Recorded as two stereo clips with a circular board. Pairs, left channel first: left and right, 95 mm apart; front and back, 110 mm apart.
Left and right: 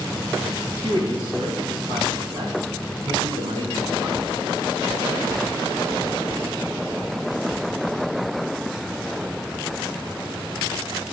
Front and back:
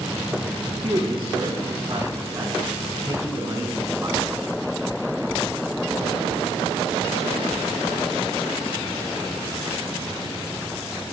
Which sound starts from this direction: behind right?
A man speaking, at 0.8 s.